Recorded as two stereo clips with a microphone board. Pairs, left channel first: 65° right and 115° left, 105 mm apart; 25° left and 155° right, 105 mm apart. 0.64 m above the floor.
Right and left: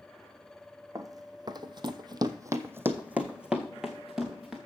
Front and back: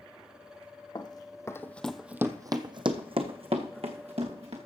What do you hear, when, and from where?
0.9 s running footsteps: 60° left, 1.4 m; by 4.6 s 160° right, 2.5 m